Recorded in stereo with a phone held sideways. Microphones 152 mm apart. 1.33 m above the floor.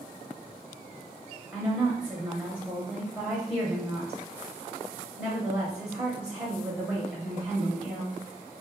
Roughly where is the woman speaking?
Centre.